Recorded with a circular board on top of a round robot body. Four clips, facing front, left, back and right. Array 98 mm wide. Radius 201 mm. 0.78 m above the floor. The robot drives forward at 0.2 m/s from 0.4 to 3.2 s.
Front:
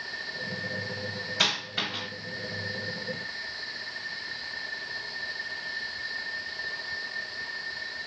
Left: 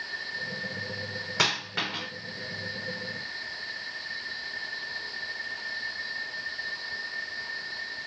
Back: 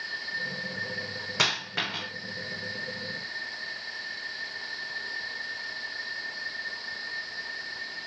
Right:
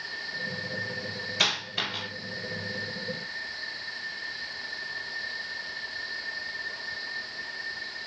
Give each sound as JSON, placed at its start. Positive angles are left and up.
{"t": 1.4, "sound": "a dropped coin", "azimuth_deg": 135, "distance_m": 2.5}